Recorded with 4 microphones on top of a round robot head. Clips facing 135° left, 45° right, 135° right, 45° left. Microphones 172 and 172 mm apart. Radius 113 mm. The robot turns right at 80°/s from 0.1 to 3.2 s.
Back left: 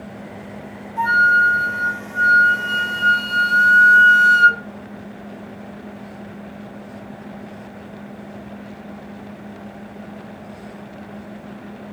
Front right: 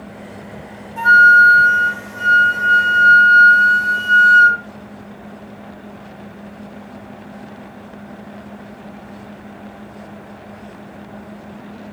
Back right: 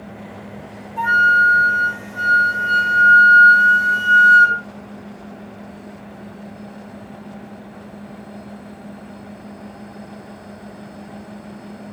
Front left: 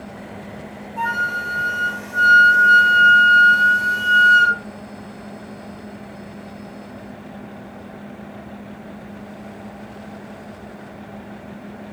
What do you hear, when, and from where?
1.0 s a flute: 55° right, 0.6 m; by 4.6 s 120° left, 0.6 m